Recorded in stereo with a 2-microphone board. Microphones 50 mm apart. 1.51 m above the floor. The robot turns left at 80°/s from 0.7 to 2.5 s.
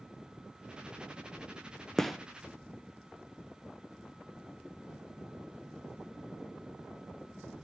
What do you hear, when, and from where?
2.0 s a gunshot: 5° left (ahead or behind), 0.5 m; by 2.2 s 5° right (ahead or behind), 0.5 m